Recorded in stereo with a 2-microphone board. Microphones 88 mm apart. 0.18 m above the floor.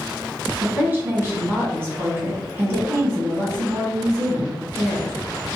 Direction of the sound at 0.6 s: 25° right (ahead or behind).